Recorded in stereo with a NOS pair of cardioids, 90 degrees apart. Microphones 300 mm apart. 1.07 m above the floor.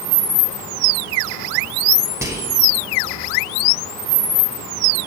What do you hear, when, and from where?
2.2 s whispering: 10° right, 1.2 m